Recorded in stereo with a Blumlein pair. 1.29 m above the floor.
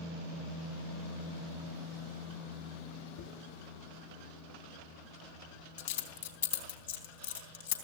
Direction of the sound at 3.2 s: 60° left.